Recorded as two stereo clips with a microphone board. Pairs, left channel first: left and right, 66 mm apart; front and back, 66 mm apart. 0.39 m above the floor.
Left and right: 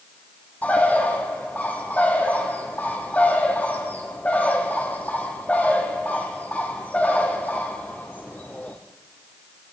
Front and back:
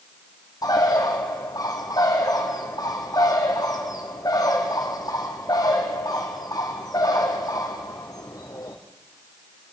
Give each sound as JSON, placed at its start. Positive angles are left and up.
{"t": 0.6, "sound": "a bird", "azimuth_deg": 25, "distance_m": 4.0}